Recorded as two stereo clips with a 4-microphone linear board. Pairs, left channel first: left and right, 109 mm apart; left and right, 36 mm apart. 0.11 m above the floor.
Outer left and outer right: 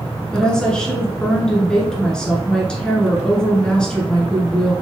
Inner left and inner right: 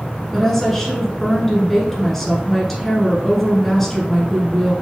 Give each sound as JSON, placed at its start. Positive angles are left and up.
{"t": 0.3, "sound": "a woman speaking", "side_deg": 10, "distance_m": 1.2}